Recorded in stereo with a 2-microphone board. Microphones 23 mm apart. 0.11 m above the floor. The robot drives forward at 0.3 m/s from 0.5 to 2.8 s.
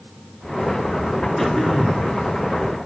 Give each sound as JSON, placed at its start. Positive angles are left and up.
{"t": 1.4, "sound": "throat clearing", "side_deg": 5, "distance_m": 1.8}